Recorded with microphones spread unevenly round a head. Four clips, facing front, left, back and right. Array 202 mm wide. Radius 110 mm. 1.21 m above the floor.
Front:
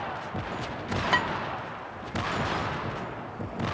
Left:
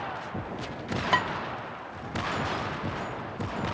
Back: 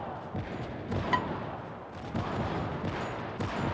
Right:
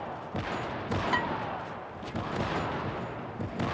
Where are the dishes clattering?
55° left, 1.3 m.